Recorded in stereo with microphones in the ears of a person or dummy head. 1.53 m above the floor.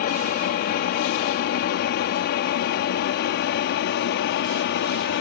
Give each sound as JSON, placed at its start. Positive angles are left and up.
{"t": 0.0, "sound": "an aircraft", "side_deg": 45}